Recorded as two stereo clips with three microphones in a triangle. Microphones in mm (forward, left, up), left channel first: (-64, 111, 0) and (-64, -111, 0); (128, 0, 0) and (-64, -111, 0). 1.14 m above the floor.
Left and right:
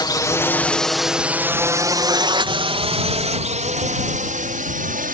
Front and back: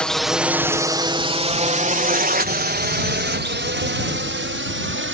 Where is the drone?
105° left; by 5.2 s 135° right.